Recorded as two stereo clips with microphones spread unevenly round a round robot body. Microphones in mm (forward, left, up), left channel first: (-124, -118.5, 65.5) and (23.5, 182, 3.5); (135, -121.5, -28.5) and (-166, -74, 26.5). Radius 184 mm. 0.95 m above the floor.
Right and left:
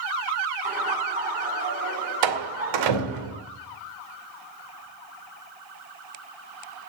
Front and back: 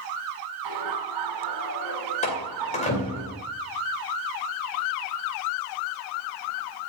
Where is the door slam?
65° left, 2.5 m.